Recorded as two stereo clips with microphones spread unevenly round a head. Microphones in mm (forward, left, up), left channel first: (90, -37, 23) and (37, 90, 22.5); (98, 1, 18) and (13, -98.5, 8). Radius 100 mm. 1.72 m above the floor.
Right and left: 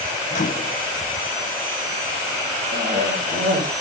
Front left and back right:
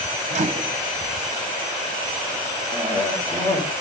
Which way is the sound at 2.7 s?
120° left.